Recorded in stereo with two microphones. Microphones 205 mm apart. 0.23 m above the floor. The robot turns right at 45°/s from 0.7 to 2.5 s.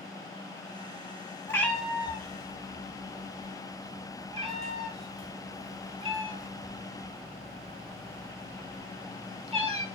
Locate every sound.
1.5 s a cat meowing: 15° left (ahead or behind), 0.6 m; by 9.8 s 30° right (ahead or behind), 0.6 m